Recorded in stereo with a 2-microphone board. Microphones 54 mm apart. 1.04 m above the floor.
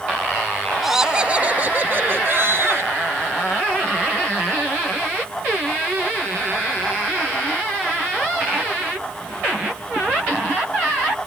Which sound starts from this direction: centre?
Laughter, at 0.8 s.